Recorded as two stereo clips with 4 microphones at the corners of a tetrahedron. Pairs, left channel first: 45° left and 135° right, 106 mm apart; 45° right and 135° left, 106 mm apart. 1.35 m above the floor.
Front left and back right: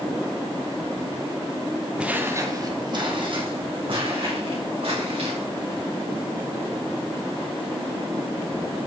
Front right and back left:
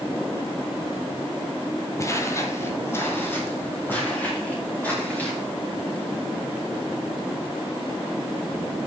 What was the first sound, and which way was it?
Footsteps, 65° right.